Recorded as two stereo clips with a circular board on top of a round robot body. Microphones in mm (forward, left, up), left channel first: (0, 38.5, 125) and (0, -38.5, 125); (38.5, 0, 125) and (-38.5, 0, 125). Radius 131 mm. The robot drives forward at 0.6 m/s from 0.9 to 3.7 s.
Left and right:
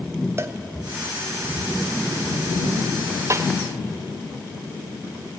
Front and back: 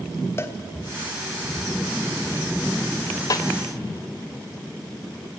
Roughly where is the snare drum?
Ahead right.